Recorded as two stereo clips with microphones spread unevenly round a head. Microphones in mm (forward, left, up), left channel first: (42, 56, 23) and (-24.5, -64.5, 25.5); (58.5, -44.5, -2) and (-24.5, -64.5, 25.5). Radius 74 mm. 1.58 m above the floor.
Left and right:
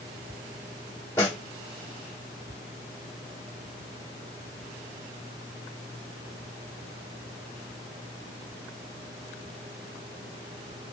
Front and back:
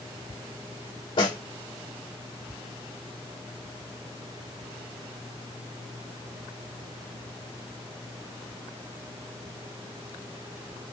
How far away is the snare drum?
About 1.5 m.